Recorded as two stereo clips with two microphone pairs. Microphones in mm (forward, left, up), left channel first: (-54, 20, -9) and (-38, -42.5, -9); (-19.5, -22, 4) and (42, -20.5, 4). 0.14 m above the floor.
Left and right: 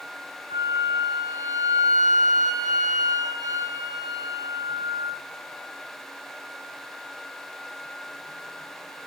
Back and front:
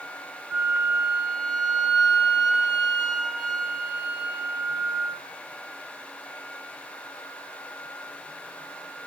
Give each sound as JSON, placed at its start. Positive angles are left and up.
{"t": 0.5, "sound": "a flute", "azimuth_deg": -75, "distance_m": 3.5}